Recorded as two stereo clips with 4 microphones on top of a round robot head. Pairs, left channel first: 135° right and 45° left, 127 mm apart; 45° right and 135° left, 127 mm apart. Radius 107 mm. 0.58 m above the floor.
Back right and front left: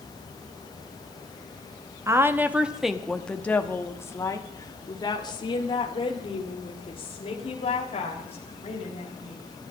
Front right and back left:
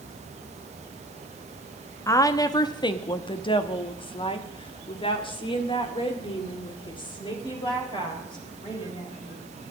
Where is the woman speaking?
5° right, 1.2 m; by 9.4 s 100° right, 4 m.